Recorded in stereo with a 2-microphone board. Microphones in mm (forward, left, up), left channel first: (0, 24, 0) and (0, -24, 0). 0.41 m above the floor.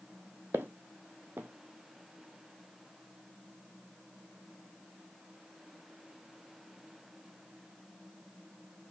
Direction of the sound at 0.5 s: 45° right (ahead or behind).